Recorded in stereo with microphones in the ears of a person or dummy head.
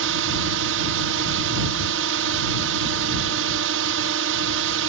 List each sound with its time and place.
0.0 s a drone: 65° right (ahead or behind)